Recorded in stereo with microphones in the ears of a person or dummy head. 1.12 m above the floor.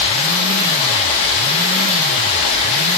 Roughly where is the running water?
Left.